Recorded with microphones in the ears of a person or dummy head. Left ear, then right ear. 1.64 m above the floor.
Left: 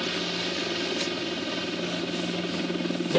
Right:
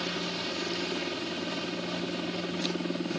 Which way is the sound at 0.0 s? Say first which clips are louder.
Left 4 dB; 5° right (ahead or behind).